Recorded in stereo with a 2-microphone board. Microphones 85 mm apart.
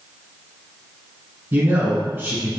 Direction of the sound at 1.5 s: 25° right (ahead or behind).